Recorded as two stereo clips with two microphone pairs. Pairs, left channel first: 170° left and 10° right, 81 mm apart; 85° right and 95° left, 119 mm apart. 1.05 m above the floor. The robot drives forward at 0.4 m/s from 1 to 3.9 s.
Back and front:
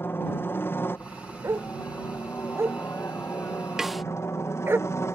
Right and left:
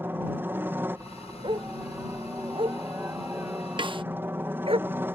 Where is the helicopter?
150° left; by 5.2 s 155° left.